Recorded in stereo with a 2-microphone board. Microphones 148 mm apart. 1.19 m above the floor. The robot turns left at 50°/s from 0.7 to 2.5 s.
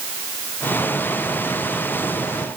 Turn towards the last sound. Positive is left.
No sound to turn to.